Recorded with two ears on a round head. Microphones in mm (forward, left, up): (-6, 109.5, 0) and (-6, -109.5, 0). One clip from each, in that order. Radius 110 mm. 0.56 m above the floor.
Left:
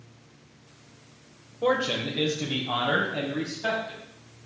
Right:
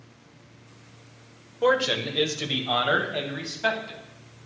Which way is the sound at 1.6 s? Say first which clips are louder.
Right 3 dB; 65° right (ahead or behind).